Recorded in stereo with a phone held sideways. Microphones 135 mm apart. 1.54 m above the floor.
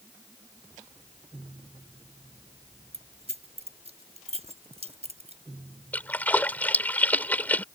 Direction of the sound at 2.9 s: 50° right (ahead or behind).